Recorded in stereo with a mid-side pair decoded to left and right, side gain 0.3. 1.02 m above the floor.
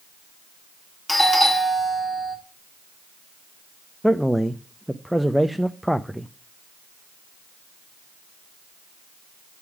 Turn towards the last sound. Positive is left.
turn(degrees=0)